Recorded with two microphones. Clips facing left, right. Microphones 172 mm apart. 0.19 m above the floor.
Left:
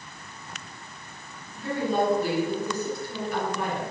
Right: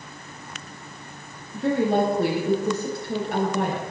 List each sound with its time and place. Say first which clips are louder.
1.5 s a woman speaking: right 5 dB; 75° right (ahead or behind), 6.5 m